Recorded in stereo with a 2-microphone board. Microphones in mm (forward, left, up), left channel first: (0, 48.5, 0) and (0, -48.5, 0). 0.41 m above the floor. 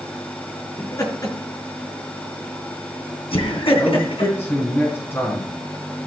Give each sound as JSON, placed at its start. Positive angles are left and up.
{"t": 0.8, "sound": "laughter", "side_deg": 35, "distance_m": 4.5}
{"t": 3.8, "sound": "a man speaking", "side_deg": 30, "distance_m": 4.0}